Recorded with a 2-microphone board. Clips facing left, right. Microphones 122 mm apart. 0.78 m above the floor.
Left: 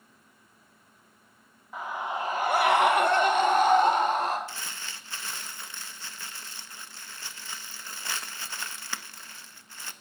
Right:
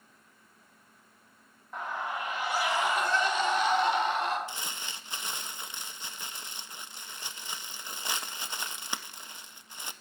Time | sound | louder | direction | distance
1.7 | a scream | left 2 dB | 5° left (ahead or behind) | 1.2 m
4.5 | crumpling | right 1 dB | 20° right (ahead or behind) | 0.6 m